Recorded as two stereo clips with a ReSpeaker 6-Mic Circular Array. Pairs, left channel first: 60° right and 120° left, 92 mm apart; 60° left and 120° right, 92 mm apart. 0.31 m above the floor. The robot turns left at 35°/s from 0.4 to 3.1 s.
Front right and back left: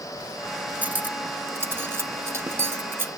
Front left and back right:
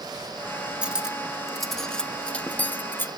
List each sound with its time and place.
0.8 s cutlery clinking: 175° left, 0.6 m; by 3.1 s 95° left, 0.6 m